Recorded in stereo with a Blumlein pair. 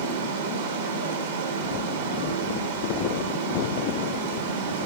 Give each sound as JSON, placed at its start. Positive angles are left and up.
{"t": 0.0, "sound": "running water", "azimuth_deg": -65, "distance_m": 1.5}